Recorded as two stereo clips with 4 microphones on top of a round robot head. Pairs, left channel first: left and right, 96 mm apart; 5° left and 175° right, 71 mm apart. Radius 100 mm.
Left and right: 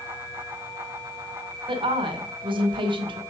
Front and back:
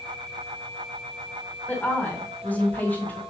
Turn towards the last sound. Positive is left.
turn(degrees=-60)